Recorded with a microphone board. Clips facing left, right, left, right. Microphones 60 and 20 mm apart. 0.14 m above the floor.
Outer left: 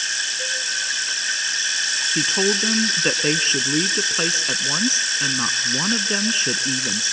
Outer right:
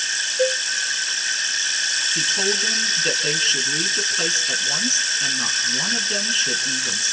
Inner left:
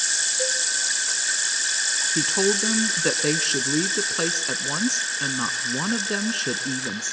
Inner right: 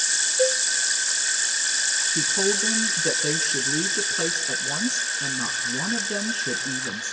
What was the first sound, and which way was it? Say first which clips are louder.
A cowbell: outer right 7 dB, inner right 3 dB; 60° right (ahead or behind).